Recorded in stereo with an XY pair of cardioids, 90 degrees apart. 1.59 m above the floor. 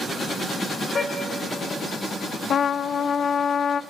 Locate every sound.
0.9 s a car horn: 45° left, 3.5 m
2.5 s a trumpet: 60° left, 0.7 m